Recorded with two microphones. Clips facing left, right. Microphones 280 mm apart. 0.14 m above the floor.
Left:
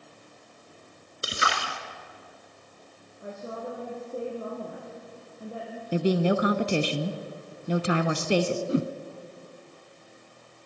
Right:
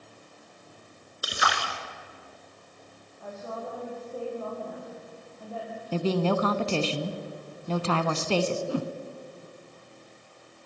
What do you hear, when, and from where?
1.2 s a splash: 25° left (ahead or behind), 2 m
3.2 s a woman speaking: 30° left (ahead or behind), 5 m
5.9 s a woman speaking: 15° left (ahead or behind), 1.1 m
8.7 s a whoosh: 25° left (ahead or behind), 0.7 m